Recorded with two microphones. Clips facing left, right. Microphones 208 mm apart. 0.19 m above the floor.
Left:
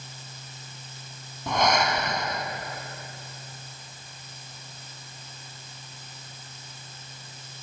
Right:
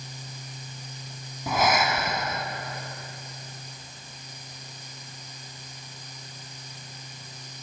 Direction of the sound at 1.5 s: 5° right (ahead or behind).